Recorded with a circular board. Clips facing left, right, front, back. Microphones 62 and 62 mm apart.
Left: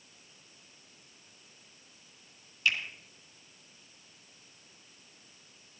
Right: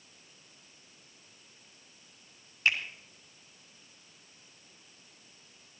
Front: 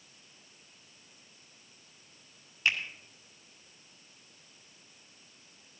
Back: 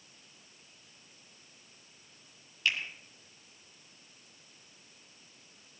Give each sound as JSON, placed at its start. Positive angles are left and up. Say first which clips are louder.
{"t": 2.6, "sound": "a finger snap", "louder": "right 1 dB, front 2 dB", "azimuth_deg": -60, "distance_m": 2.0}